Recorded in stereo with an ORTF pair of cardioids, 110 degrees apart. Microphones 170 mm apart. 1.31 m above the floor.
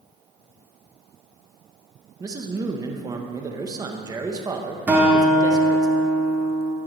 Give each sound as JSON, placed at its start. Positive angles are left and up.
{"t": 2.2, "sound": "a man speaking", "azimuth_deg": -20, "distance_m": 0.9}
{"t": 4.9, "sound": "a guitar", "azimuth_deg": -10, "distance_m": 1.7}